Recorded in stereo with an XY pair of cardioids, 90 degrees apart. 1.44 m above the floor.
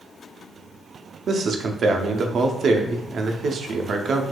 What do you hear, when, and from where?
1.3 s a man speaking: 60° right, 0.5 m